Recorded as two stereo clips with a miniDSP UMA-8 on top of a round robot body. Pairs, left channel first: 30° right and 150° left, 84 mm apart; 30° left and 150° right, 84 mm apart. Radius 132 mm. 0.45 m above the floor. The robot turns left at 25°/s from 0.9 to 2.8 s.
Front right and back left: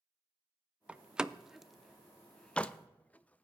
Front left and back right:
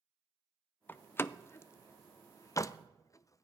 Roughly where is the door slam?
Left.